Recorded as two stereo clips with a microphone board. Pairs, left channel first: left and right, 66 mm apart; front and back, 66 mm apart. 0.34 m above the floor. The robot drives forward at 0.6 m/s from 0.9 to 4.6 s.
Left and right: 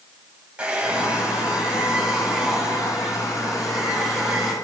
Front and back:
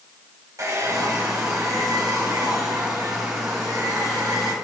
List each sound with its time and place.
0.6 s a hair dryer: 155° right, 1.6 m; by 4.5 s 170° right, 3.5 m